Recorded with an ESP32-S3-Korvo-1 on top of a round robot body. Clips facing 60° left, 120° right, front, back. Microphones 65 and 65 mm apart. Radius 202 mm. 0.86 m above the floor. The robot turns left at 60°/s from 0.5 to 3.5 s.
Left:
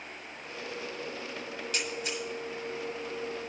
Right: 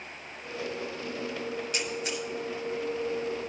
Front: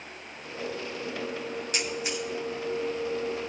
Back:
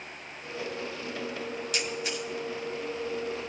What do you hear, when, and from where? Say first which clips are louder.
1.7 s a camera shutter: right 2 dB, front 1 dB; 50° right, 1.0 m; by 2.2 s 80° right, 1.0 m